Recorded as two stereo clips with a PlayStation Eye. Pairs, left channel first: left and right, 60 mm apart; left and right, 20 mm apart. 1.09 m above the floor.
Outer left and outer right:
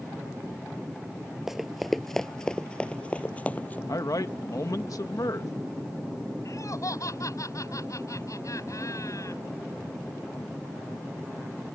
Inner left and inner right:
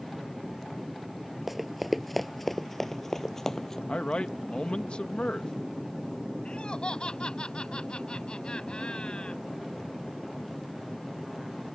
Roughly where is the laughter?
Left.